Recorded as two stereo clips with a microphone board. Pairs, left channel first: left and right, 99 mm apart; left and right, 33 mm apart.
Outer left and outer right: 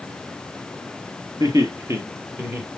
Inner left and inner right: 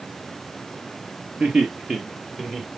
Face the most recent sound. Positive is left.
turn(degrees=-15)  # may be behind; listen again after turning